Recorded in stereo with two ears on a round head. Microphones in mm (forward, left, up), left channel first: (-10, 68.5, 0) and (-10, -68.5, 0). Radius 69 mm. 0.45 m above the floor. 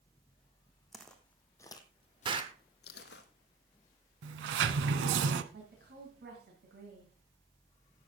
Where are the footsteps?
Centre (ahead or behind), 1.8 m; by 3.2 s 75° left (ahead or behind), 1.5 m.